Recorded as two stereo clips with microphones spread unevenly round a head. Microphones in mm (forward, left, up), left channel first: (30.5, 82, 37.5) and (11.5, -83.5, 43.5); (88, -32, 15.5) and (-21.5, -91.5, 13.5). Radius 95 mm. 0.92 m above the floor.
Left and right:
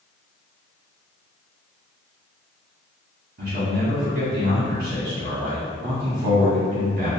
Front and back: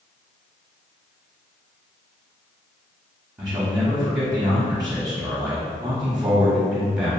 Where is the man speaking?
90° right, 0.9 m.